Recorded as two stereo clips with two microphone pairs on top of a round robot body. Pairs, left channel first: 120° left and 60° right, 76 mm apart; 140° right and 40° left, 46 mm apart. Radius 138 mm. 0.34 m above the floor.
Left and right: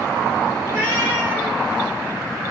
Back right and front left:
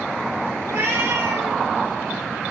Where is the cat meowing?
Straight ahead, 3 m; by 1.6 s 10° left, 1.7 m.